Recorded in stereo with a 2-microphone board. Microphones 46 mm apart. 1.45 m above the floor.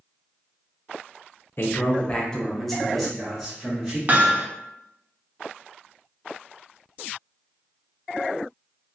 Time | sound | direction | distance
1.6 | a man speaking | 50° left (ahead or behind) | 0.5 m
4.1 | hammering | 35° right (ahead or behind) | 0.5 m